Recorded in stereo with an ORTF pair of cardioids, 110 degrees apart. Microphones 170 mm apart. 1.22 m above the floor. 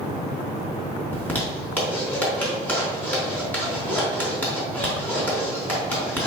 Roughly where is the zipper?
Ahead.